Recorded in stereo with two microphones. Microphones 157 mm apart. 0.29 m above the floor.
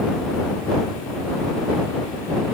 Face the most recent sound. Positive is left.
No sound to turn to.